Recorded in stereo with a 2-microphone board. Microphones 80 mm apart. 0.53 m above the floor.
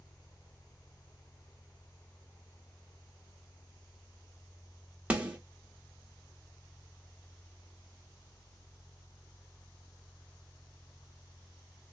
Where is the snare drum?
15° right (ahead or behind), 1.1 m.